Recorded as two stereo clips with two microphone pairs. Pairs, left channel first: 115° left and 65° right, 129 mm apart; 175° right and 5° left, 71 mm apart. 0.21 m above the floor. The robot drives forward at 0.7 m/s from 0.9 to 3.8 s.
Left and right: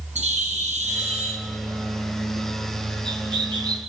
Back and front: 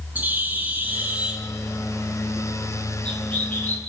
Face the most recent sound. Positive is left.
turn(degrees=-115)